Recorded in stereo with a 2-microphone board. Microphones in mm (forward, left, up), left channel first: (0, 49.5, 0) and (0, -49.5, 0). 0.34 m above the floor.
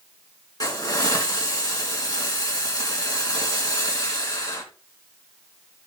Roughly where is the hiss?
Left.